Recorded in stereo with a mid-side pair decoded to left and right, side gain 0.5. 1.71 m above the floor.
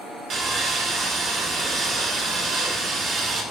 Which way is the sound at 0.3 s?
60° right.